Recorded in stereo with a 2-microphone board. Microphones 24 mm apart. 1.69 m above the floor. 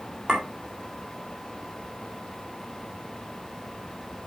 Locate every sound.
0.3 s a clink: 40° right (ahead or behind), 3.5 m